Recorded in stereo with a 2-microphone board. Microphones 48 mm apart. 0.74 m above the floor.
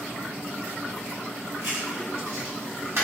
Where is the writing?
65° right (ahead or behind), 1.7 m.